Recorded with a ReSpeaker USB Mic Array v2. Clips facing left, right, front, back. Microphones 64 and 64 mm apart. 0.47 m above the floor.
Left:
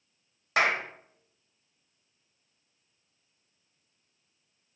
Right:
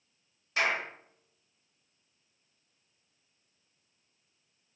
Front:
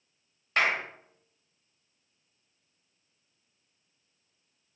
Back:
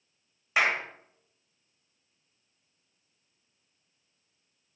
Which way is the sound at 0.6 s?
100° left.